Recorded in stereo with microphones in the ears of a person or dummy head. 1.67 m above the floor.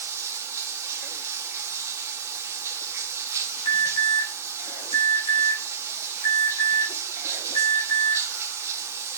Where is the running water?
15° right (ahead or behind), 1.0 m.